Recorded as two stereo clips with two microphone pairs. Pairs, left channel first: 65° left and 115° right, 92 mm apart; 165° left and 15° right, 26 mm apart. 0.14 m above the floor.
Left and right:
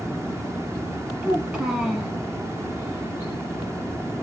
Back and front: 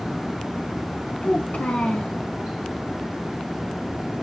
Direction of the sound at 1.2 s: 165° left.